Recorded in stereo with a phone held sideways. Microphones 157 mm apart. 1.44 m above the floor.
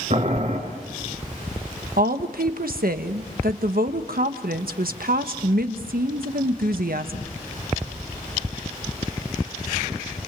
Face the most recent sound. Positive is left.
turn(degrees=-80)